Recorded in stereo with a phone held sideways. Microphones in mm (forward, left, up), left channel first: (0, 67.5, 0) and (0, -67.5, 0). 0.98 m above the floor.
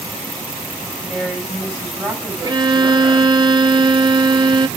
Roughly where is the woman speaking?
Centre.